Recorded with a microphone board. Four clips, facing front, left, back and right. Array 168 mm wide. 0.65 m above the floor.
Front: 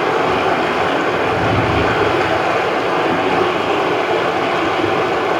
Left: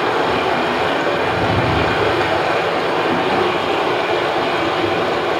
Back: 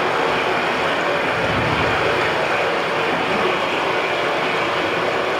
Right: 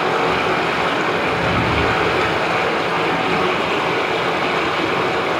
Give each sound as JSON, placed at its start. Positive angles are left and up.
{"t": 0.0, "sound": "running water", "azimuth_deg": 35, "distance_m": 2.5}